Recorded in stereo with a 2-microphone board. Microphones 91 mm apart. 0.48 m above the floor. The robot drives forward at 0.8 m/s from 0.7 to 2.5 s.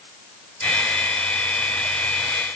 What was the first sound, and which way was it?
Only background noise.